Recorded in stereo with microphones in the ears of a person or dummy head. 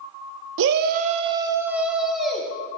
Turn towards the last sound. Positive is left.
turn(degrees=0)  # may be behind; listen again after turning